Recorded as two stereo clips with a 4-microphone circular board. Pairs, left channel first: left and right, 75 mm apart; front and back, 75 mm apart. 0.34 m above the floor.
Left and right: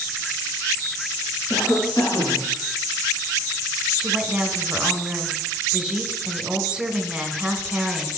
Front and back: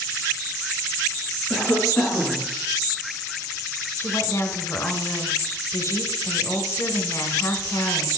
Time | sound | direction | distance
1.5 | a cough | 70° left | 3.5 m
4.0 | a woman speaking | 15° right | 1.2 m